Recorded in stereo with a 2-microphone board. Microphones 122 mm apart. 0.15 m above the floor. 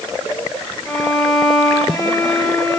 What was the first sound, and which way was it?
A violin, centre (ahead or behind).